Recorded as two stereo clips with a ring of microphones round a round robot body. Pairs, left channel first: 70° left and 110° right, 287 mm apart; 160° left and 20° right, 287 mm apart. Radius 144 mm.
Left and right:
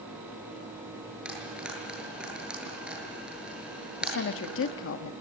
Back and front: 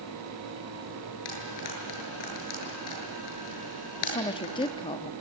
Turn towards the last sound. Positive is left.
turn(degrees=90)